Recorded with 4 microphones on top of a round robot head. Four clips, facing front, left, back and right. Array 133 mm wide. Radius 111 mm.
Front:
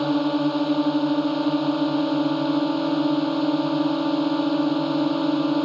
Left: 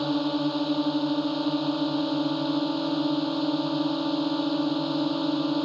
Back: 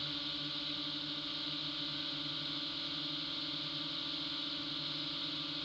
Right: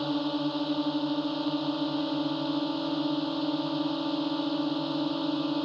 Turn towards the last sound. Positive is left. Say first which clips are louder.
# left 3 dB, front 26 dB
turn(degrees=5)